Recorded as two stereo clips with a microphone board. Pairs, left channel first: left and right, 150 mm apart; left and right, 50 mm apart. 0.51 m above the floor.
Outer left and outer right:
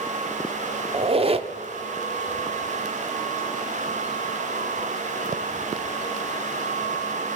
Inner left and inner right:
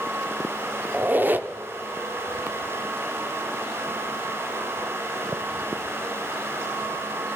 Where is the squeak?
40° right (ahead or behind), 0.7 m.